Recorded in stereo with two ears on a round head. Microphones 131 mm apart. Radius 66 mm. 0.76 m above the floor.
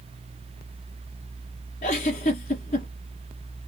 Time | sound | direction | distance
1.8 | a giggle | 45° left (ahead or behind) | 2.0 m